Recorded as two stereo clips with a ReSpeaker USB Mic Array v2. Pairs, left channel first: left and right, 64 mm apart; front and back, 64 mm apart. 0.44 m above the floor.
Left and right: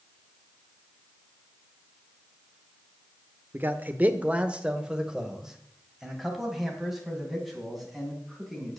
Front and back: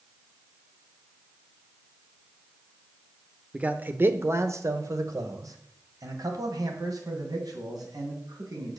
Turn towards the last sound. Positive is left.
turn(degrees=180)